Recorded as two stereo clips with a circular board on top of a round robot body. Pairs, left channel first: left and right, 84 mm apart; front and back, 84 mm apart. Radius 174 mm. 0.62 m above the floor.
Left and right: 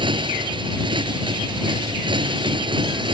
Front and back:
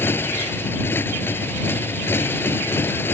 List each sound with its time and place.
0.0 s a motorcycle: 65° right